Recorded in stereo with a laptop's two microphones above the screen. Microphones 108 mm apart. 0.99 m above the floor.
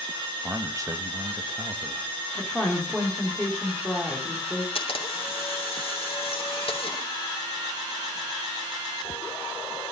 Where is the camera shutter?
60° left (ahead or behind), 2.5 m.